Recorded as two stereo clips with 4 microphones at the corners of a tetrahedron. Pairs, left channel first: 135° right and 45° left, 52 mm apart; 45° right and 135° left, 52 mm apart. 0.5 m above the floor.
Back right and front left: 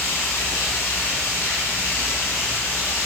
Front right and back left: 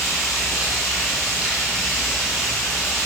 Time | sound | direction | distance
0.0 | running water | 130° right | 5 m